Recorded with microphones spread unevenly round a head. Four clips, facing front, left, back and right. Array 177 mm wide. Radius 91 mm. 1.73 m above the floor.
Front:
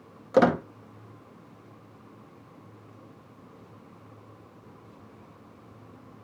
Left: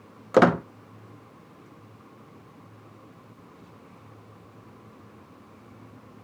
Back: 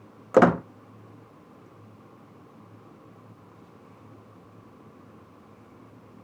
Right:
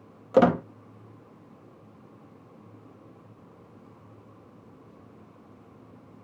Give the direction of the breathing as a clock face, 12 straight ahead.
I don't hear breathing.